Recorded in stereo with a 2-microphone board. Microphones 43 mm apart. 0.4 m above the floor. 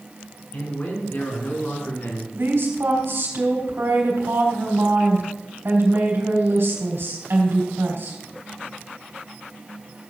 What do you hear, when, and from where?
0.5 s a man speaking: 45° left (ahead or behind), 5 m
2.3 s a woman speaking: 65° right (ahead or behind), 3.5 m